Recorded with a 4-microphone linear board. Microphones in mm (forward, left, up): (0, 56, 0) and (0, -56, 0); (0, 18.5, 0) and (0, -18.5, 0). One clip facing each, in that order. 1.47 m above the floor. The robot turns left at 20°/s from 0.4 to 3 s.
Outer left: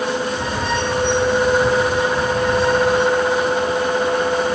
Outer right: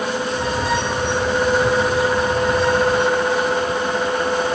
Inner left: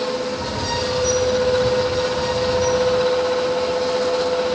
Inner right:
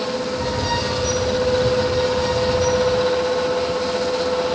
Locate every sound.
Only background noise.